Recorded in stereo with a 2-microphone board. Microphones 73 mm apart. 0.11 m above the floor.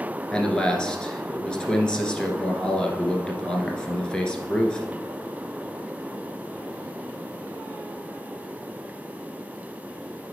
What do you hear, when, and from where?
0.3 s a man speaking: 10° left (ahead or behind), 1.3 m